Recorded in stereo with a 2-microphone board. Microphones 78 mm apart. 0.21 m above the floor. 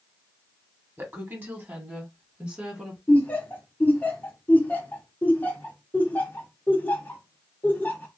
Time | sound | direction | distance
1.0 | a woman speaking | 30° right (ahead or behind) | 1.3 m
3.1 | laughter | 25° left (ahead or behind) | 1.0 m